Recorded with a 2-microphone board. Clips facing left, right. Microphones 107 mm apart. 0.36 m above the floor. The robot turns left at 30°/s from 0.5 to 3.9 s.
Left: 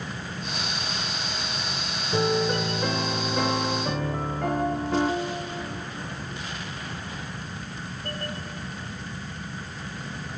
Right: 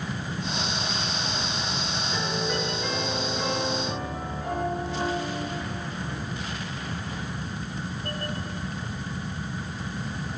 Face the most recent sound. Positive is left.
turn(degrees=90)